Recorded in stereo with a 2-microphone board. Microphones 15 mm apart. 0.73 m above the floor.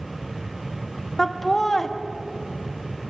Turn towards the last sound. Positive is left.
turn(degrees=25)  # may be behind; listen again after turning